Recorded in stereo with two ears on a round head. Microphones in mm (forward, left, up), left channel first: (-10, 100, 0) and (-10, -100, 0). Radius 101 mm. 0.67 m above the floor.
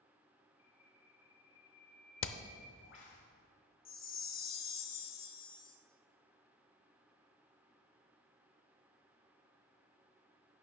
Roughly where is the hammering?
Left.